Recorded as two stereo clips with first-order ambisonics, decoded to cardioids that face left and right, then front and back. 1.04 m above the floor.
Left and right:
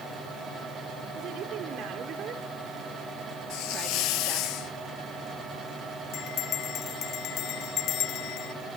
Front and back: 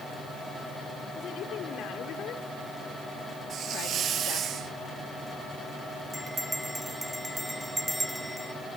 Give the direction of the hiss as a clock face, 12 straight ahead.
8 o'clock.